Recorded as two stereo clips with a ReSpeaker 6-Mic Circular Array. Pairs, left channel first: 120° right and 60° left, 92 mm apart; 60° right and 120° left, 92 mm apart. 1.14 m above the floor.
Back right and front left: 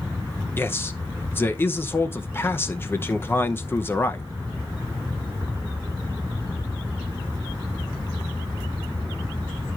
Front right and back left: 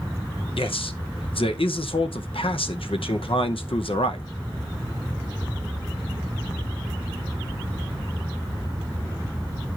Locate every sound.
0.6 s a man speaking: 55° right, 0.7 m